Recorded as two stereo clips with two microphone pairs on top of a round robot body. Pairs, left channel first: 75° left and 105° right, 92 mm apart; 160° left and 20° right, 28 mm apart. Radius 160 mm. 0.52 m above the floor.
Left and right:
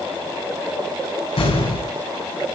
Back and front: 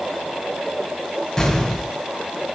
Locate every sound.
1.4 s an explosion: 80° left, 7.5 m